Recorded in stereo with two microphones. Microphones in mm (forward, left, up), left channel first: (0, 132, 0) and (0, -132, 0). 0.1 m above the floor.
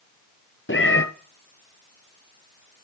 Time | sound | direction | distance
0.7 | a cat meowing | 50° left (ahead or behind) | 1.1 m